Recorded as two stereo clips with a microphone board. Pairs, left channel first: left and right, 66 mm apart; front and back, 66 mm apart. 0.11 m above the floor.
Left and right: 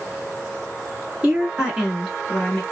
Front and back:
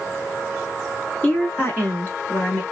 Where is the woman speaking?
35° right, 1.5 m; by 2.6 s 25° left, 1.3 m.